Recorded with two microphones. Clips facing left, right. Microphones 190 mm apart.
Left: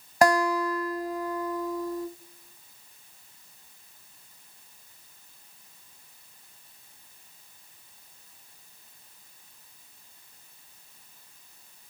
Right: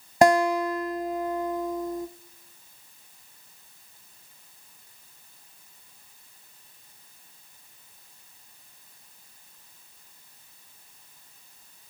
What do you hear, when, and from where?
0.2 s a guitar: 25° right (ahead or behind), 0.6 m